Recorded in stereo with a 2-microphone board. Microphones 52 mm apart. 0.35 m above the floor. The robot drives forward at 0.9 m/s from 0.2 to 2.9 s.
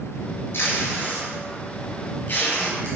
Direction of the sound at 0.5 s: 50° left (ahead or behind).